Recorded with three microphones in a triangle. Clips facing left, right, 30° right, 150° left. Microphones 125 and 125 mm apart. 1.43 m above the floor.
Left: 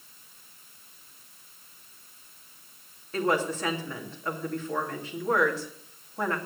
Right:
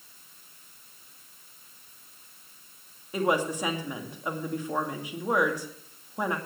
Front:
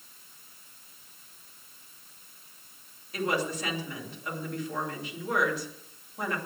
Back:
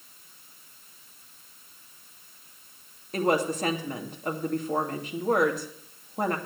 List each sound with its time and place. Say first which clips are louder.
3.1 s a woman speaking: even, back 5 dB; 165° right, 2.5 m